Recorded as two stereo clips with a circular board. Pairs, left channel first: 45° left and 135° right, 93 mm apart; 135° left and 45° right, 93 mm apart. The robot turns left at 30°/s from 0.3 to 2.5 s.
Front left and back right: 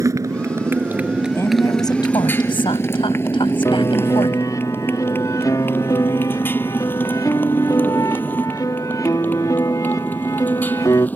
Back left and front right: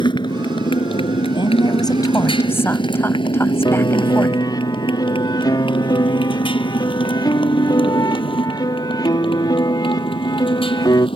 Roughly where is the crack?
No crack in this recording.